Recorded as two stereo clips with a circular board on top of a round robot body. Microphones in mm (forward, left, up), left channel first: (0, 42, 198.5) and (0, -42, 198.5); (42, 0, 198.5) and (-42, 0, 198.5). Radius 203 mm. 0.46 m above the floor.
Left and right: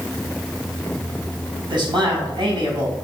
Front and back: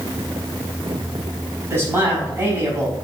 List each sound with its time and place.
1.7 s a man speaking: 120° right, 5 m